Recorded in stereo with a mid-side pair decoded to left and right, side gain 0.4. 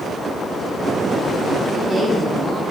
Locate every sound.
1.6 s a woman speaking: 35° right, 3 m